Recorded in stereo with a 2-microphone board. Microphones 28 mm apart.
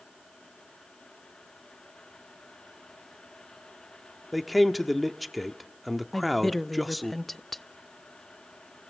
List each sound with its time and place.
4.3 s a man speaking: centre (ahead or behind), 1.0 m
6.1 s a woman speaking: 5° left (ahead or behind), 0.5 m